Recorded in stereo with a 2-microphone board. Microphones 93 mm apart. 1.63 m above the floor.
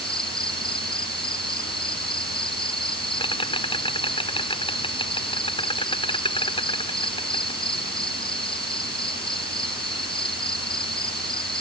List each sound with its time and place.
0.0 s an insect: 60° left (ahead or behind)